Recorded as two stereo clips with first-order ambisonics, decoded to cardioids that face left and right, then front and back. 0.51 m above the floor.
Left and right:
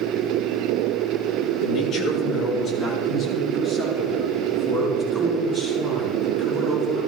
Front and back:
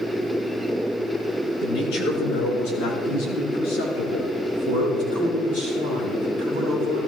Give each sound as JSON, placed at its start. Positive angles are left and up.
{"t": 1.6, "sound": "a man speaking", "azimuth_deg": 30, "distance_m": 5.0}